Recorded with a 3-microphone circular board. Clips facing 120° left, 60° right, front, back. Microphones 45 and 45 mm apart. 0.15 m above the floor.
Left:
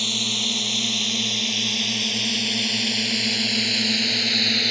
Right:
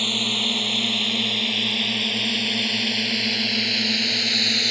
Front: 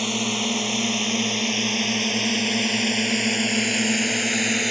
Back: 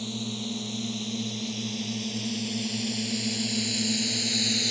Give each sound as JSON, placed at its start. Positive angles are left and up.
{"t": 0.0, "sound": "a drone", "azimuth_deg": 10}